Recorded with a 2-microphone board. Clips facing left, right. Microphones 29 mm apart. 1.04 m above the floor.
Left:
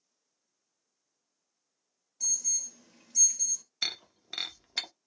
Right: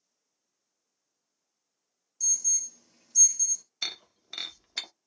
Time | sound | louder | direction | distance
2.2 | an alarm | right 2 dB | 50° left (ahead or behind) | 0.9 m
3.8 | breaking glass | left 1 dB | 10° left (ahead or behind) | 0.6 m